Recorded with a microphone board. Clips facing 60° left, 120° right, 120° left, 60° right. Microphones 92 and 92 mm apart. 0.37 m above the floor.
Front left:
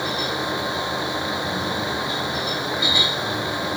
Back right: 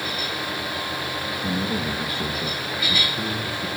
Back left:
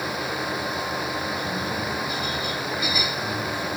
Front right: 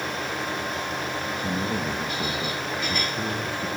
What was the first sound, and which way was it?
A man speaking, 85° right.